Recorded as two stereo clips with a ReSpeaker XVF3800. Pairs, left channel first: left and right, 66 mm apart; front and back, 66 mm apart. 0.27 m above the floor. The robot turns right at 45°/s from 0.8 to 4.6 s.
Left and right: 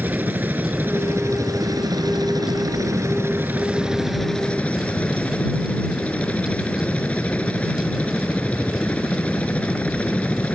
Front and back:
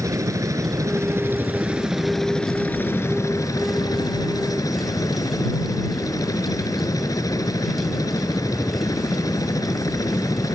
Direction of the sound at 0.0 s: 150° right.